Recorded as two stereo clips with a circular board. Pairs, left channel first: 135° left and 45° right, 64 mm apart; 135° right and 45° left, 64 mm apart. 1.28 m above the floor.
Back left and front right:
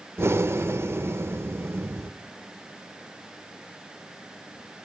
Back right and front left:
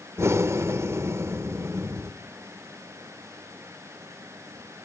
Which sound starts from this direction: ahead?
Breathing, at 0.2 s.